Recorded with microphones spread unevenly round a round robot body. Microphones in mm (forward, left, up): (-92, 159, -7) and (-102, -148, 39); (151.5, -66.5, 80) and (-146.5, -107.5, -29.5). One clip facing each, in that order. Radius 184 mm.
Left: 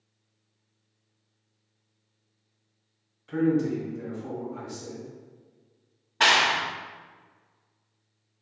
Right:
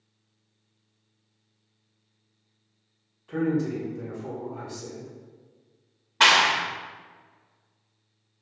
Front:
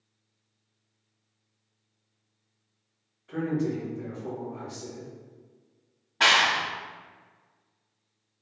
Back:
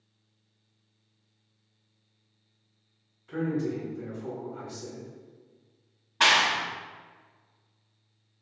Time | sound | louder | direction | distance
3.3 | a man speaking | left 2 dB, front 1 dB | 130° left | 1.4 m
6.2 | a clap | right 1 dB, front 1 dB | 175° right | 0.5 m